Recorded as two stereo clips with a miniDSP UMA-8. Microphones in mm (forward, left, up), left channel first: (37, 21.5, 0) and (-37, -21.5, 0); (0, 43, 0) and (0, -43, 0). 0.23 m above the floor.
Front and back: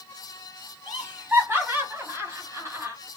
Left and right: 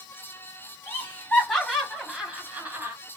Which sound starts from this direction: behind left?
Laughter, at 0.9 s.